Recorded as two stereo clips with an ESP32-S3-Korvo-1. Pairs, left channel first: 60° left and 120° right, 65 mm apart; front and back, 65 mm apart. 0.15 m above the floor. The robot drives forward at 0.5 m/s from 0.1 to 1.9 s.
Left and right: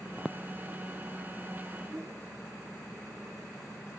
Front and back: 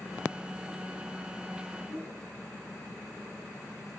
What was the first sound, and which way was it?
A whoosh, 70° right.